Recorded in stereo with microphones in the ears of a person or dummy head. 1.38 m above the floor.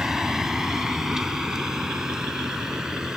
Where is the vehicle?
5° right (ahead or behind).